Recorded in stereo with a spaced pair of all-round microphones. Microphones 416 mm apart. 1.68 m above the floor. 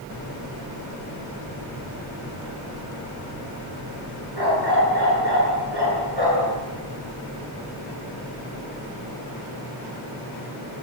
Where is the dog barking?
70° right (ahead or behind), 10 m.